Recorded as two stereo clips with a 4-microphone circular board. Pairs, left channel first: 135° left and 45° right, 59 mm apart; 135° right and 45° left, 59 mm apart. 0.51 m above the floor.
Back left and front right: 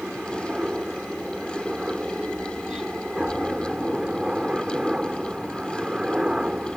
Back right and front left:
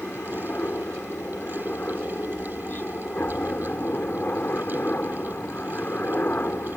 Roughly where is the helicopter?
Right.